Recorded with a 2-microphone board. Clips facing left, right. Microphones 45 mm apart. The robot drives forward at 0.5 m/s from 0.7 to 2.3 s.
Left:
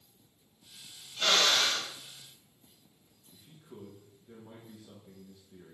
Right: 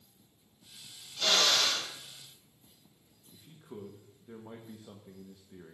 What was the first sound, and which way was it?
A drill, 35° left (ahead or behind).